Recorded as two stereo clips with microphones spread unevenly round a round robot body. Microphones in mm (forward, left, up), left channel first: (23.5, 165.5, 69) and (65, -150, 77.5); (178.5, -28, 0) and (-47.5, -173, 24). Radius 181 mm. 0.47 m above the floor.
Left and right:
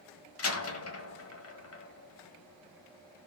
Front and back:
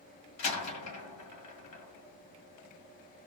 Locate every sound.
0.4 s a door slam: 55° left, 1.9 m